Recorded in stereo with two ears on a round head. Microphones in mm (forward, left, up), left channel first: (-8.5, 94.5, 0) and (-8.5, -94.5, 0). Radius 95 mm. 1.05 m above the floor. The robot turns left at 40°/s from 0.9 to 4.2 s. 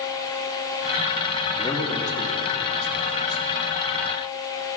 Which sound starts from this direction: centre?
A man speaking, at 1.6 s.